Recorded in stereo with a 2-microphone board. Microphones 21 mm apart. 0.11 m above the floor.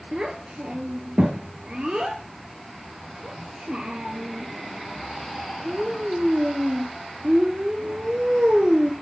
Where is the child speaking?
50° right (ahead or behind), 1.0 m.